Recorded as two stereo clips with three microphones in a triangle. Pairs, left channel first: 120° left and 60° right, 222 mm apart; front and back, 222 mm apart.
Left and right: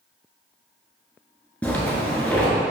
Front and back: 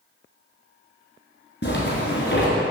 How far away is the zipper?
About 1.6 m.